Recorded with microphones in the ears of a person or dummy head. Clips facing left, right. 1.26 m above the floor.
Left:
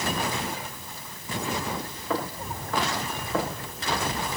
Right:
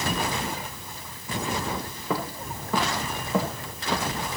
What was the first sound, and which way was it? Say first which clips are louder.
Footsteps: even; 10° right (ahead or behind).